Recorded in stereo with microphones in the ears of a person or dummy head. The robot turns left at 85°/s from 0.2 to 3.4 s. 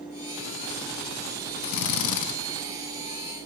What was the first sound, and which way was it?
A drill, 125° left.